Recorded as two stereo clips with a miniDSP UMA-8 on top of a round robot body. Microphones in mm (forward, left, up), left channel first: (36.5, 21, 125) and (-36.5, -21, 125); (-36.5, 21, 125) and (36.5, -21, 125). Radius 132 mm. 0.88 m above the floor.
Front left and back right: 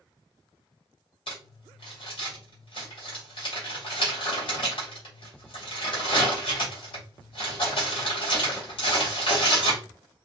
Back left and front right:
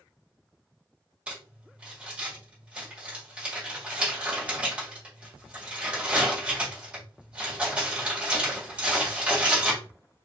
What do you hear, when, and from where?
1.3 s crumpling: 50° left, 1.9 m